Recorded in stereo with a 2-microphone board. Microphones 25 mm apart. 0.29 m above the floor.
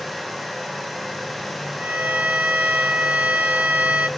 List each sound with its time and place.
1.8 s a violin: 70° right (ahead or behind), 0.8 m